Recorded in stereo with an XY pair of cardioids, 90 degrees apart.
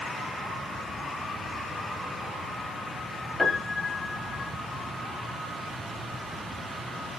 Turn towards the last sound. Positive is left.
turn(degrees=30)